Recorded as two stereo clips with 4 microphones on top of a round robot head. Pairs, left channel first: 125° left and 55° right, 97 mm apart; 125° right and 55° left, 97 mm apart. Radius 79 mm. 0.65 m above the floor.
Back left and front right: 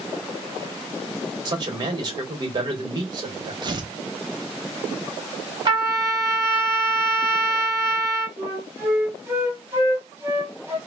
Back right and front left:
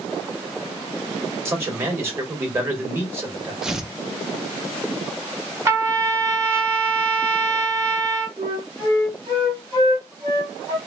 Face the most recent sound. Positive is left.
turn(degrees=10)